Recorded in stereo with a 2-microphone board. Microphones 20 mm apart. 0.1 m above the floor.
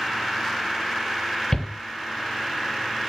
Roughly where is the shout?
Left.